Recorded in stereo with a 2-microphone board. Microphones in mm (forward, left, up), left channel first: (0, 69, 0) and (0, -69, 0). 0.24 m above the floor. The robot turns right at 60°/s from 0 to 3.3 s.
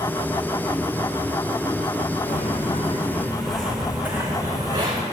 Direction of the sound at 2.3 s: 80° left.